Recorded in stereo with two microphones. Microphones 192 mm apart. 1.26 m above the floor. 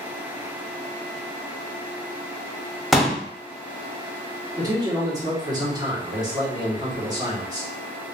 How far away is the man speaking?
About 1.4 m.